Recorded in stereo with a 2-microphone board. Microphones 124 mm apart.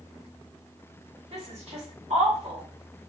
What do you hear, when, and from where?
1.3 s a woman speaking: 55° right (ahead or behind), 2.5 m